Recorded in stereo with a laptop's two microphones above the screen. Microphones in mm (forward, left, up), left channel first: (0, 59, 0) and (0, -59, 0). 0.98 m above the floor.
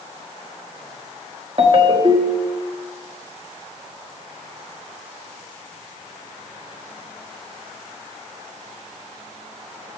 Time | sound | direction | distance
1.6 | a ringtone | 45° right (ahead or behind) | 1.3 m